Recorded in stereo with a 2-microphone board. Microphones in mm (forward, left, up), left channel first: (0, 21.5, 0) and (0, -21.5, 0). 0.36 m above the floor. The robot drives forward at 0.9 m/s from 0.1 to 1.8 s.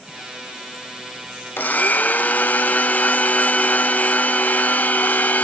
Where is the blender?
50° left (ahead or behind), 0.7 m; by 5.5 s 40° left (ahead or behind), 0.8 m.